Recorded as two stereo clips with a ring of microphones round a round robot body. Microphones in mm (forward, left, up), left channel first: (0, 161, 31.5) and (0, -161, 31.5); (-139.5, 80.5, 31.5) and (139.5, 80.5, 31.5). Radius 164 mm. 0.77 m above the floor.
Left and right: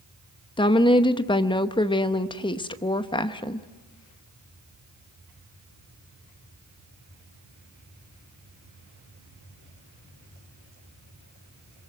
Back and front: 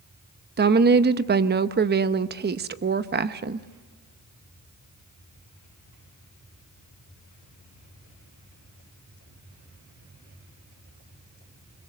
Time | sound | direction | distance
0.6 | a woman speaking | 25° left | 0.9 m